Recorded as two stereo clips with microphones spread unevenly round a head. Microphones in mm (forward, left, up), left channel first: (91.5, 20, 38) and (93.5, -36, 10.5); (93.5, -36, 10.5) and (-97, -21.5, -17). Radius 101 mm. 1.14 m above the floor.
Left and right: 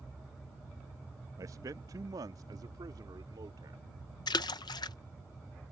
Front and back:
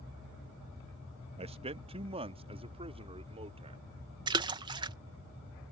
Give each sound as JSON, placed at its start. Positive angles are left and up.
{"t": 1.4, "sound": "a man speaking", "azimuth_deg": -125}
{"t": 4.3, "sound": "a splash", "azimuth_deg": 110}